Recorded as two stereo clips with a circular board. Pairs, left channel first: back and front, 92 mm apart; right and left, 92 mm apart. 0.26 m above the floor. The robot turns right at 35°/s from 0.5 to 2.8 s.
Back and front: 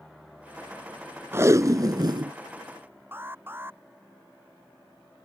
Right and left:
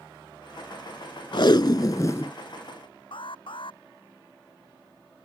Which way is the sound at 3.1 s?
65° right.